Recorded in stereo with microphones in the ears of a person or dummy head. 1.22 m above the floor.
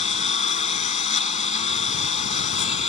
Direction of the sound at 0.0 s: 40° left (ahead or behind).